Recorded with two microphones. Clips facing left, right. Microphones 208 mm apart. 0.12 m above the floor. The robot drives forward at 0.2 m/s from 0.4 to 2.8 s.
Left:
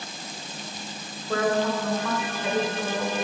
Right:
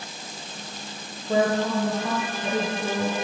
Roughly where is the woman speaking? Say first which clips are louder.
Right 2 dB; centre.